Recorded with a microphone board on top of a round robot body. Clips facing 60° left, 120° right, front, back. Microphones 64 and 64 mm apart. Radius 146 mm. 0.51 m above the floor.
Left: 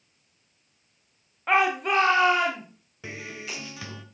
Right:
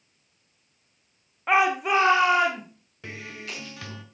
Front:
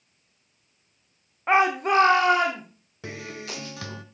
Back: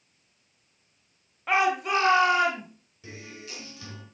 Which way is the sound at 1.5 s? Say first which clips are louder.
Right 1 dB, front 4 dB; 40° right.